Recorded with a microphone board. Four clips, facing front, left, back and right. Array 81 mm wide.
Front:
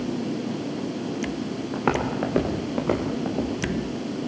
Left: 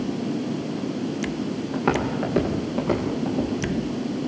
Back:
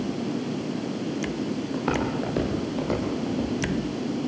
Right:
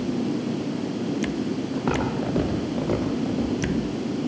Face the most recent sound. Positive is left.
turn(degrees=10)